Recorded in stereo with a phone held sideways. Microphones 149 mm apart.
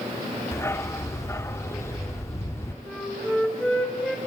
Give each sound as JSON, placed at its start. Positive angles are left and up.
{"t": 0.5, "sound": "a dog barking", "side_deg": 15, "distance_m": 0.8}
{"t": 2.9, "sound": "a flute", "side_deg": 5, "distance_m": 4.0}